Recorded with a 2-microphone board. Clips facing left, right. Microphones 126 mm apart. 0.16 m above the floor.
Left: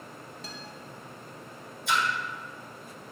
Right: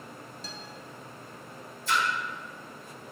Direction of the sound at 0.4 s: 55° left (ahead or behind).